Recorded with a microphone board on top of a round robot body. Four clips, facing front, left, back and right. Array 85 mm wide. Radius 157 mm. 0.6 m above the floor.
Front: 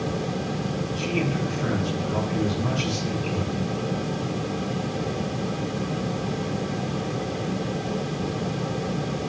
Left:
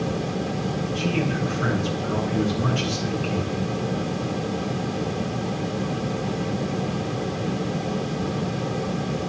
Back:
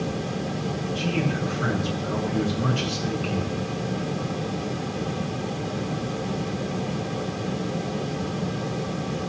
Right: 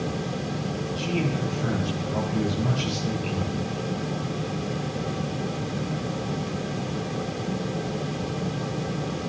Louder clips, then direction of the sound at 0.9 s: Left 2 dB, even; 130° left.